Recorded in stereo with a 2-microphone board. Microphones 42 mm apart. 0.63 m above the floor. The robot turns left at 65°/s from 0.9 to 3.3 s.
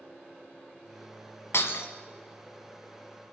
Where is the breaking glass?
75° left (ahead or behind), 1.5 m.